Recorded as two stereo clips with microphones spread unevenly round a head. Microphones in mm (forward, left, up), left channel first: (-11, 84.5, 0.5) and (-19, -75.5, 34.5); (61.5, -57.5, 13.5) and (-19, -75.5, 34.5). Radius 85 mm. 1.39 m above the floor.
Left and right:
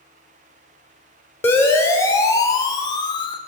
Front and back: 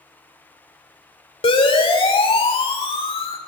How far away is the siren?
About 5 m.